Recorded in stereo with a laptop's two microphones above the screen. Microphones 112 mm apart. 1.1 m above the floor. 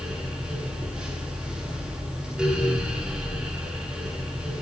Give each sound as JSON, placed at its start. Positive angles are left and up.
{"t": 0.0, "sound": "a fan", "side_deg": -5, "distance_m": 8.5}